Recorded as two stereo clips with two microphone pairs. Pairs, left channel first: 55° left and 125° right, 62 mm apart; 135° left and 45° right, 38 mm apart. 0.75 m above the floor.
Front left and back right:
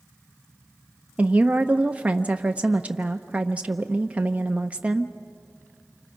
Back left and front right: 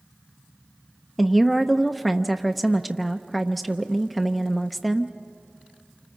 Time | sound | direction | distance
1.2 | a woman speaking | 135° right | 0.6 m